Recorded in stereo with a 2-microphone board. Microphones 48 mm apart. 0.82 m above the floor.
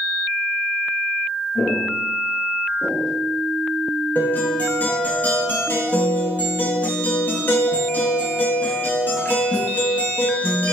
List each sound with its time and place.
1.6 s footsteps: 50° left (ahead or behind), 1.4 m; by 3.2 s 5° right (ahead or behind), 0.7 m
4.2 s a guitar: 35° left (ahead or behind), 0.7 m